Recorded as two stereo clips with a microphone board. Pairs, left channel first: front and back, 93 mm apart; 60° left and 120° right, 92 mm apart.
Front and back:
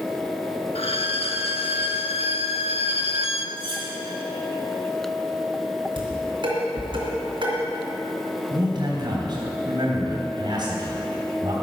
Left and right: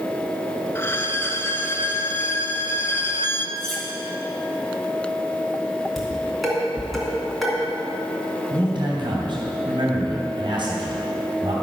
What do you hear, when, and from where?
0.8 s a violin: 5° right, 0.6 m
3.6 s cutlery clinking: 150° left, 3 m
6.0 s dishes clattering: 150° left, 3 m
8.5 s a man speaking: 145° right, 3 m